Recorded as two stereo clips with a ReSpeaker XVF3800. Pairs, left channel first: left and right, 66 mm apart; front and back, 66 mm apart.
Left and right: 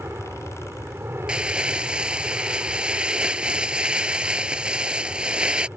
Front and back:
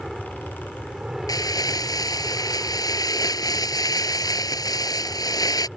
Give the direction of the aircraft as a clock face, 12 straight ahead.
3 o'clock.